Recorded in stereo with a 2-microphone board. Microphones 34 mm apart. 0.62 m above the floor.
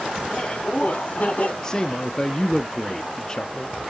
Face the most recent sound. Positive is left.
turn(degrees=20)  # may be behind; listen again after turning